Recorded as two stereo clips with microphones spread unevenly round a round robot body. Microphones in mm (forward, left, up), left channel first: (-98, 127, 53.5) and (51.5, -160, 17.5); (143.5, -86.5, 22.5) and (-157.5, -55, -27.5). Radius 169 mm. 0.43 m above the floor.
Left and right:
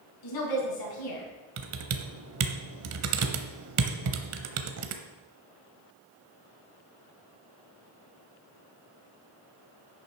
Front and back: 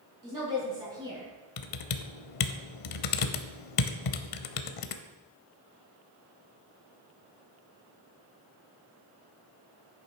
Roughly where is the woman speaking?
Left.